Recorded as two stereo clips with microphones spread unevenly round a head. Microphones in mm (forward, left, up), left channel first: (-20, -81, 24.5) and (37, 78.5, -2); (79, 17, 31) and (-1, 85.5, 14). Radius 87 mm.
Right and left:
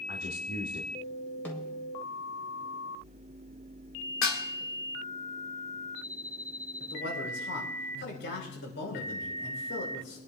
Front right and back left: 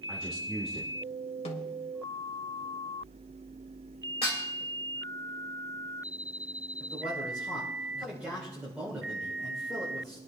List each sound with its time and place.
0.1 s a man speaking: 140° right, 1.8 m
1.4 s a snare drum: 25° right, 2 m
4.2 s dishes clattering: 100° right, 1.7 m
6.8 s a man speaking: 140° right, 4 m